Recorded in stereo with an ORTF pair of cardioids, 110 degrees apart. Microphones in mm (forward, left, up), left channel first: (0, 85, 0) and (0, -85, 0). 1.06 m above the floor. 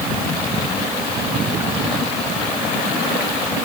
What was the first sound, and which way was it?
Only background noise.